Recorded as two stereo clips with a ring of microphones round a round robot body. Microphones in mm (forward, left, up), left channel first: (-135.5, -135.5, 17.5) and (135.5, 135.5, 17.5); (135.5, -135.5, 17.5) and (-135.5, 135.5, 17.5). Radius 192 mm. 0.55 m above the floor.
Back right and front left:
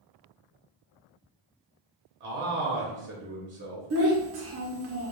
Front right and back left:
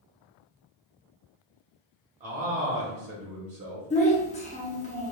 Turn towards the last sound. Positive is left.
turn(degrees=20)